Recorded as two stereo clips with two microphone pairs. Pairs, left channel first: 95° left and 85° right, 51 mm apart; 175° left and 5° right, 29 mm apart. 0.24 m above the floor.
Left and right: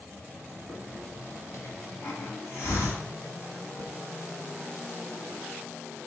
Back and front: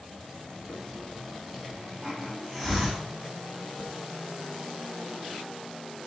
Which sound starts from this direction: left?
A hiss, at 0.7 s.